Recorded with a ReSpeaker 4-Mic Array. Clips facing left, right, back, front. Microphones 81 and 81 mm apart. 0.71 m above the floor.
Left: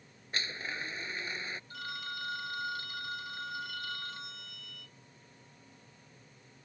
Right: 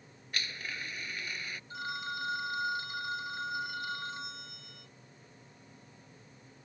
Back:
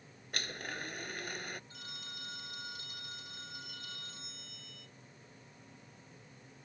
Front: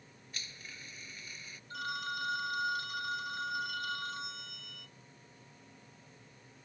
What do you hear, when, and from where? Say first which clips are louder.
0.3 s a blender: left 2 dB, back 10 dB; 155° left
1.7 s a phone ringing: right 4 dB, front 13 dB; 20° right